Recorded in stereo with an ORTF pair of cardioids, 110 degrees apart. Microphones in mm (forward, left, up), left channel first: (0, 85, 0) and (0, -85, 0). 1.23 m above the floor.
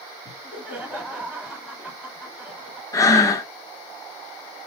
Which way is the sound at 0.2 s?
5° right.